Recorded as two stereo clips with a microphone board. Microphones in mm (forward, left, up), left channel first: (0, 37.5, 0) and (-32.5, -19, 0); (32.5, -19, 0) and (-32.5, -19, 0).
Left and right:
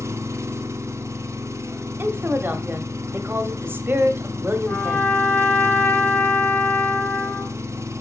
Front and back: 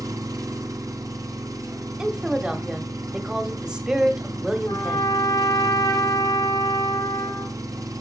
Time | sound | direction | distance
0.0 | an engine running | 160° right | 0.9 m
2.0 | a woman speaking | 115° right | 1.0 m
4.7 | a trumpet | 5° right | 1.6 m